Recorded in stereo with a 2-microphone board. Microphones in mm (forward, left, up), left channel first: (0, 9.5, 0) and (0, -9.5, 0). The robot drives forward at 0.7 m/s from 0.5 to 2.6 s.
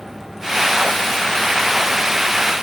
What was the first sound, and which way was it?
Only background noise.